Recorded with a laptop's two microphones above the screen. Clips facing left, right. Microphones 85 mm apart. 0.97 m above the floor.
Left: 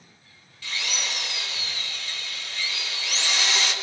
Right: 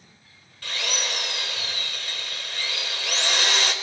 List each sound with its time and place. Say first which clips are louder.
0.6 s a drill: right 2 dB; 55° right (ahead or behind), 5 m